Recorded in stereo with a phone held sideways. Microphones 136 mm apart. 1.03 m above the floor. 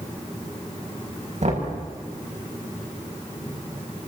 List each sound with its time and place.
1.4 s knocking: 65° right (ahead or behind), 7 m